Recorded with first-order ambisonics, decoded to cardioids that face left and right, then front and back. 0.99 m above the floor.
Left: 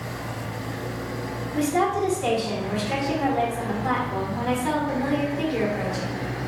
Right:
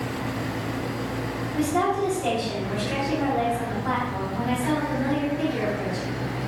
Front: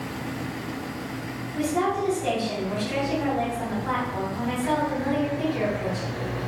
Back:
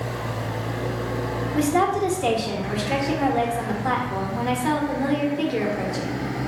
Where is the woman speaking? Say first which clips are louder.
Left 1 dB, back 4 dB; 165° left, 0.9 m.